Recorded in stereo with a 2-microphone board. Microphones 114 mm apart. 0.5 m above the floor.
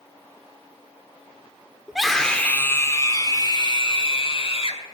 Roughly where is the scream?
Centre.